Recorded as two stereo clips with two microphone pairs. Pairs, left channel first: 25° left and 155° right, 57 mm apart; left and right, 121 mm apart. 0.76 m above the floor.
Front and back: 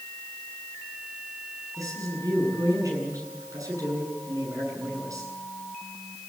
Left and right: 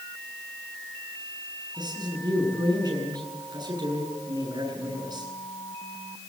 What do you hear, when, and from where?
1.8 s a man speaking: 145° right, 8.5 m